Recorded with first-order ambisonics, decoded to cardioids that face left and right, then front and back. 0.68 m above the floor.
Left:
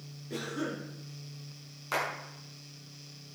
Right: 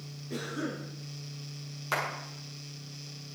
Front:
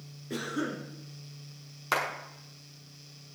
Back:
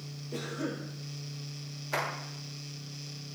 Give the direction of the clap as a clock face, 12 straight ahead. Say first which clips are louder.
Right 1 dB, front 4 dB; 12 o'clock.